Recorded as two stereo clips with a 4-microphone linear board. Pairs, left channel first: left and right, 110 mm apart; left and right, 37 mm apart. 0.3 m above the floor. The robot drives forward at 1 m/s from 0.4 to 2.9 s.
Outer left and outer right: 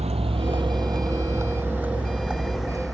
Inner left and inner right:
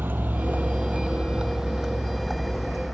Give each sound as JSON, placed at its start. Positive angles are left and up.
{"t": 0.0, "sound": "a vehicle", "side_deg": -75}